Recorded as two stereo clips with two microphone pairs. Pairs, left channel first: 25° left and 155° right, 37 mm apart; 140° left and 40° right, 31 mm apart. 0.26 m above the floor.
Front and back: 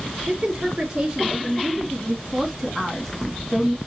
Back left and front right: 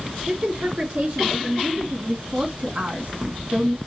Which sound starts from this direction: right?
A woman speaking, at 0.3 s.